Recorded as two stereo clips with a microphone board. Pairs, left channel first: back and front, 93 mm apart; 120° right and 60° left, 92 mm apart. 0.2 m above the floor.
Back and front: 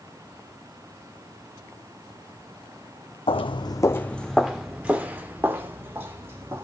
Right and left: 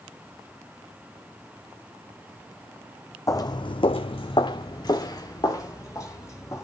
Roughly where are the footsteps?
Behind.